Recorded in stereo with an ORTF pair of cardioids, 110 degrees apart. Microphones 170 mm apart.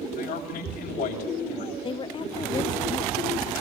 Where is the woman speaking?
30° left, 0.7 m.